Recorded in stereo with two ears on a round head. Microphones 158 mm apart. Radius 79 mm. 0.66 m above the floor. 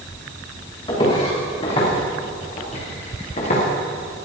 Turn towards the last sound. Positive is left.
turn(degrees=40)  # may be behind; listen again after turning